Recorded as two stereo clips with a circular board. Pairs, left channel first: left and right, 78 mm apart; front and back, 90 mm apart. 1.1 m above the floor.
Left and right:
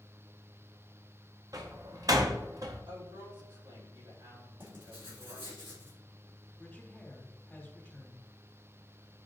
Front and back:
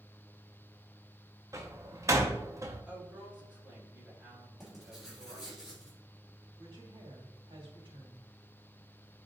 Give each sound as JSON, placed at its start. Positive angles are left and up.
{"t": 1.5, "sound": "a door slam", "azimuth_deg": -125, "distance_m": 0.8}
{"t": 2.9, "sound": "a woman speaking", "azimuth_deg": -100, "distance_m": 3.5}
{"t": 4.6, "sound": "writing", "azimuth_deg": -95, "distance_m": 3.0}
{"t": 6.6, "sound": "a woman speaking", "azimuth_deg": 160, "distance_m": 3.0}